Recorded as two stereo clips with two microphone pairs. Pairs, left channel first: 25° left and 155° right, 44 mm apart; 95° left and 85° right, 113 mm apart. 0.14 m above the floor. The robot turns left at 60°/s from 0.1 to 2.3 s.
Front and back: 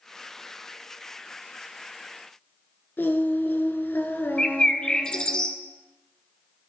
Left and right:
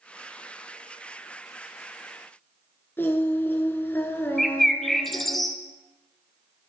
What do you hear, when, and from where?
3.0 s singing: 30° left, 0.7 m
4.4 s a bird: 15° left, 0.6 m